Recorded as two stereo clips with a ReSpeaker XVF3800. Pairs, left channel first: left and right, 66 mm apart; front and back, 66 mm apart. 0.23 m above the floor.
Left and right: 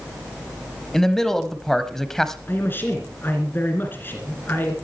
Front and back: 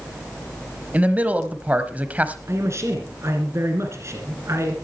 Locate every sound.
0.9 s a man speaking: 165° left, 1.0 m
2.5 s a man speaking: 145° left, 2.5 m